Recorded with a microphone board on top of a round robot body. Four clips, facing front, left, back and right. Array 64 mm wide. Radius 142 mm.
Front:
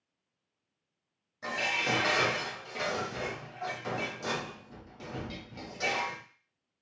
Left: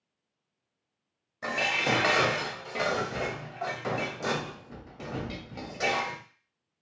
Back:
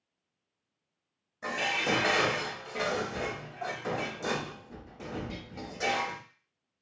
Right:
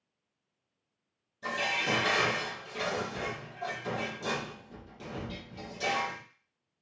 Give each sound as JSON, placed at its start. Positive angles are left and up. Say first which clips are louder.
{"t": 1.4, "sound": "dishes clattering", "louder": "left 3 dB, back 1 dB", "azimuth_deg": 100, "distance_m": 0.8}